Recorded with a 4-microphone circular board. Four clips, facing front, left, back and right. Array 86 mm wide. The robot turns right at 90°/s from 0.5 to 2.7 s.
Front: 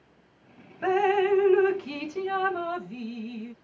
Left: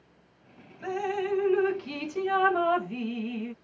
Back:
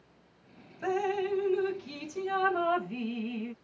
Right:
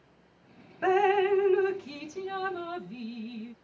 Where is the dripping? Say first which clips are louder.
Right 7 dB, front 7 dB; 60° right; by 3.5 s 110° left.